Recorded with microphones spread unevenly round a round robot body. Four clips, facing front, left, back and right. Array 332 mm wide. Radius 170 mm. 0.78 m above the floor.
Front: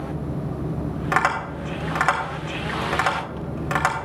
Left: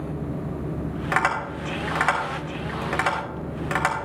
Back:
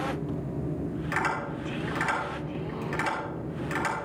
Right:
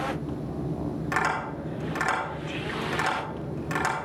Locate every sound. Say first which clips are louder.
1.1 s tapping: left 5 dB, front 9 dB; 25° left, 4 m